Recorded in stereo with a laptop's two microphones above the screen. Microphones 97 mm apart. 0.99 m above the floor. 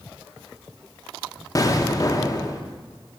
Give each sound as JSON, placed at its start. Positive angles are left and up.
{"t": 1.6, "sound": "an explosion", "side_deg": 40, "distance_m": 0.5}